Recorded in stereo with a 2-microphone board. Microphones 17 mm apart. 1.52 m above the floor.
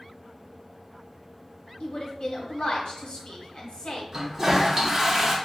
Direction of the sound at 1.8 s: 70° left (ahead or behind).